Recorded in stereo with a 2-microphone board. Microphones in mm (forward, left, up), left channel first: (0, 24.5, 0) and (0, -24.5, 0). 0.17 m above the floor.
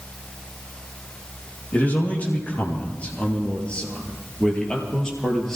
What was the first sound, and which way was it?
A man speaking, 30° left (ahead or behind).